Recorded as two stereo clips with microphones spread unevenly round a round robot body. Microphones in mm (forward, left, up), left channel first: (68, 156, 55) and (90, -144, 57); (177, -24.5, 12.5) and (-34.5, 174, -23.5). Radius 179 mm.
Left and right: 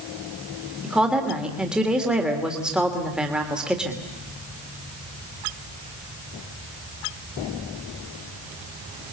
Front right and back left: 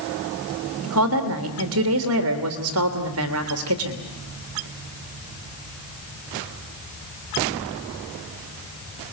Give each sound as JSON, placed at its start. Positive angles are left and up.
{"t": 0.8, "sound": "a woman speaking", "azimuth_deg": -175, "distance_m": 2.5}